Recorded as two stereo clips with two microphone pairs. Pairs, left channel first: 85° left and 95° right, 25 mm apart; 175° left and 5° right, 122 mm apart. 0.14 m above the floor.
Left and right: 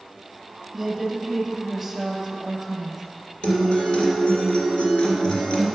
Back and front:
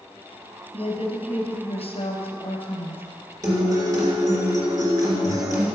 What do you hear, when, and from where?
0.7 s a woman speaking: 175° left, 2.5 m
3.4 s a guitar: 50° left, 2.5 m